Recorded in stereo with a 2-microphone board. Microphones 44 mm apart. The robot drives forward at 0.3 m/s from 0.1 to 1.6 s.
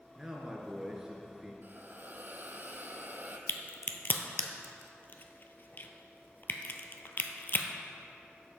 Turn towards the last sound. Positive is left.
turn(degrees=50)  # may be behind; listen again after turning